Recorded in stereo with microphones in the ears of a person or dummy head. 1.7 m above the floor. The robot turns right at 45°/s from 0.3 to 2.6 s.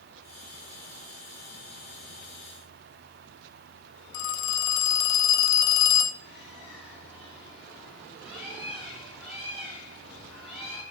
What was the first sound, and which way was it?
A phone ringing, 55° left (ahead or behind).